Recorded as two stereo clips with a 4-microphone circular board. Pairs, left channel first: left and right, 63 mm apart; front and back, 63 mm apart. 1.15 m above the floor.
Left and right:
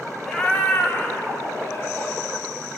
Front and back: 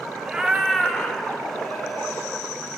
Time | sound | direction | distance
0.2 | a cat meowing | 145° left | 0.7 m